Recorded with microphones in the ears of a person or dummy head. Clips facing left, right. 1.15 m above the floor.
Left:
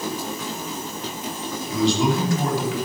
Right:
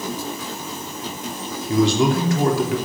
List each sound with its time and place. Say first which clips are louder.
1.7 s a man speaking: right 3 dB; 50° right (ahead or behind), 3.5 m